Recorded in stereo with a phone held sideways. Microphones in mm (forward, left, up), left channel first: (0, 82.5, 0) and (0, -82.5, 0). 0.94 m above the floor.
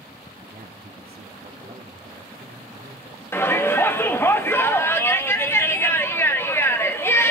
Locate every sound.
0.4 s a man speaking: 55° right (ahead or behind), 1.8 m; by 4.3 s 75° right (ahead or behind), 3.5 m
3.3 s a shout: 15° left (ahead or behind), 1.2 m